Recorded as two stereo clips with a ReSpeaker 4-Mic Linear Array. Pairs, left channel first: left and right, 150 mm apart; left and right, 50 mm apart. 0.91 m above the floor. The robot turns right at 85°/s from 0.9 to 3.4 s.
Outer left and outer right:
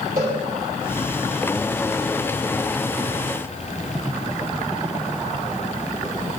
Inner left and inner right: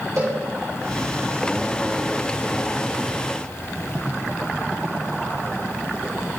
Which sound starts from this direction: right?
A cowbell, at 0.2 s.